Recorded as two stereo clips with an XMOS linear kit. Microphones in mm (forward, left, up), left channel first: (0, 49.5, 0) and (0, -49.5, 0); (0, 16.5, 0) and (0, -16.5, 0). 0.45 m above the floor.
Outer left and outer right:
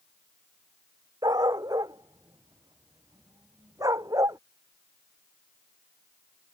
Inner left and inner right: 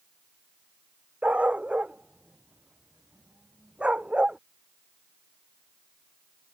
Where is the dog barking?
40° right (ahead or behind); by 4.4 s 35° right (ahead or behind).